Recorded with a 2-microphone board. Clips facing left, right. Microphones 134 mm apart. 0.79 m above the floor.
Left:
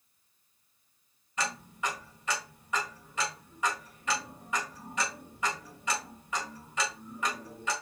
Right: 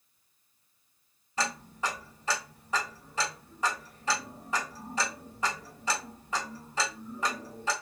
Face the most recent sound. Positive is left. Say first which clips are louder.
# right 2 dB
turn(degrees=-35)  # may be behind; listen again after turning